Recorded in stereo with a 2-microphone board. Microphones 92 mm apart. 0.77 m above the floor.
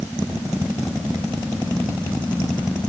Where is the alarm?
No alarm in this recording.